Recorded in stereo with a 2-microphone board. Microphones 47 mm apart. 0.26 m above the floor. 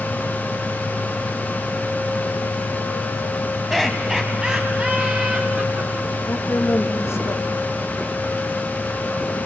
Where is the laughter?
5° right (ahead or behind), 2 m; by 6.1 s 50° right (ahead or behind), 3.5 m.